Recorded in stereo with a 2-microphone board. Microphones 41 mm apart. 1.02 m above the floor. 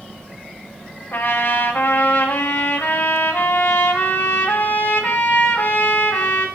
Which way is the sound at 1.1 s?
70° left (ahead or behind).